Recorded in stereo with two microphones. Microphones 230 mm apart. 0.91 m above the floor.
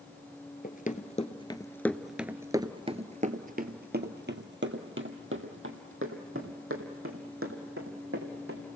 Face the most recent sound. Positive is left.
turn(degrees=-70)  # may be behind; listen again after turning